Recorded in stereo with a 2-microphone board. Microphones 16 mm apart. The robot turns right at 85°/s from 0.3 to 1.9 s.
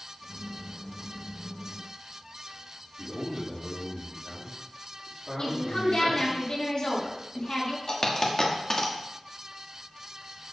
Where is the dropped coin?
40° left (ahead or behind), 1.3 m.